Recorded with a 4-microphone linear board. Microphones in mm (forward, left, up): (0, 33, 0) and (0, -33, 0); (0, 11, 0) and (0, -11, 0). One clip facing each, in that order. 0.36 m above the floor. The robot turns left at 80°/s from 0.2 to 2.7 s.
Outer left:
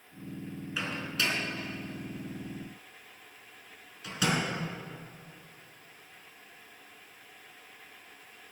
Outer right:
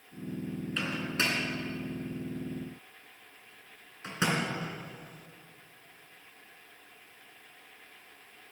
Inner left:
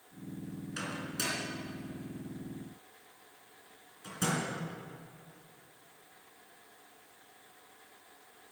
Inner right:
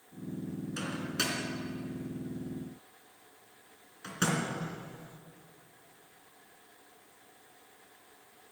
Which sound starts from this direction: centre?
A microwave, at 0.8 s.